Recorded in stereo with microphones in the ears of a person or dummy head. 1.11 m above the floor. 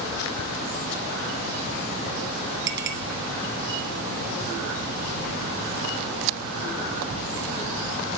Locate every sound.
2.7 s a clink: 65° right (ahead or behind), 2 m